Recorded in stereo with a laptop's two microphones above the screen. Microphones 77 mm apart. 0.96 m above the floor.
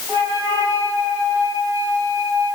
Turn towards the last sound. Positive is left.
turn(degrees=-30)  # may be behind; listen again after turning